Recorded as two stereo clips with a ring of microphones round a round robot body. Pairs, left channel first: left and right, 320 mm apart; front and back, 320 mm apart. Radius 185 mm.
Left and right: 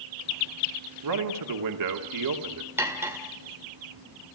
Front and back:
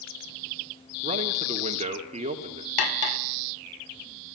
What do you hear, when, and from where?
1.0 s a man speaking: 110° right, 2.5 m
2.8 s cutlery clinking: 5° right, 1.5 m